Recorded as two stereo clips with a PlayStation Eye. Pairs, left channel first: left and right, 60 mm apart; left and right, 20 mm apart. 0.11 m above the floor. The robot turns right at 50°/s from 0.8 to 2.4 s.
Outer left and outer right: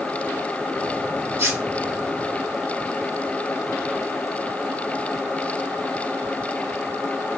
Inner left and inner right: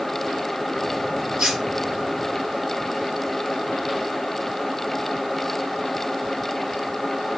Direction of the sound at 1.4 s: 40° right (ahead or behind).